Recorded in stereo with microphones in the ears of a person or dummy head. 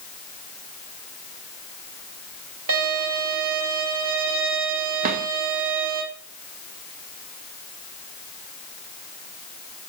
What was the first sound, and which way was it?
A violin, 75° right (ahead or behind).